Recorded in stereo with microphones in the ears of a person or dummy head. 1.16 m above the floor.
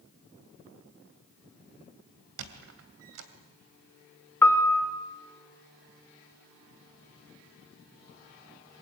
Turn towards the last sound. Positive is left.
turn(degrees=15)  # may be behind; listen again after turning